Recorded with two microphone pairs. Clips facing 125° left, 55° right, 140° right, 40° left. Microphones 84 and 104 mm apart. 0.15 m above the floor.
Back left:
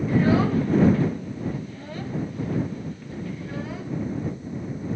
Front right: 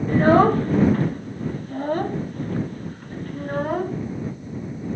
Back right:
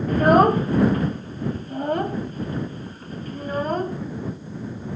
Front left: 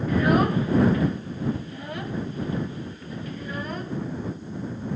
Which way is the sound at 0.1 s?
95° right.